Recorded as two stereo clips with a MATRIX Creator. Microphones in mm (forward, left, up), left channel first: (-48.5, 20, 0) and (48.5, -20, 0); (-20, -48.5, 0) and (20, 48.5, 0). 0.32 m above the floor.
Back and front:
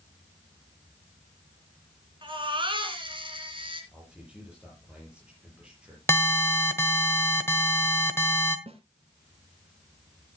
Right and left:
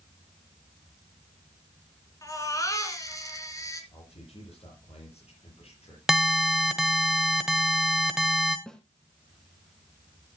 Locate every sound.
2.2 s a baby crying: 55° right, 3 m
3.9 s a man speaking: 100° right, 7.5 m
6.1 s an alarm: 145° left, 1.3 m
8.7 s a snare drum: 30° right, 1.6 m